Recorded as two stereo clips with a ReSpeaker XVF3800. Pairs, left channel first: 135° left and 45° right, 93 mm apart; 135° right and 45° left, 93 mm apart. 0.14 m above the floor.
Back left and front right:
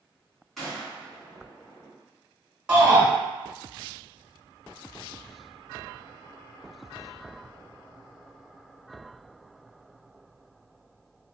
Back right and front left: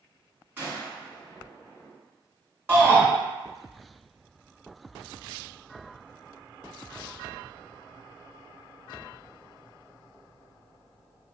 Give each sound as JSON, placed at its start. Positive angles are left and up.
{"t": 0.6, "sound": "a gunshot", "azimuth_deg": 50, "distance_m": 1.5}
{"t": 2.7, "sound": "a shout", "azimuth_deg": 15, "distance_m": 1.6}